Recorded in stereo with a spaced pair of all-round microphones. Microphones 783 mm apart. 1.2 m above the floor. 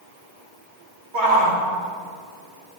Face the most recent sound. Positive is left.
turn(degrees=-80)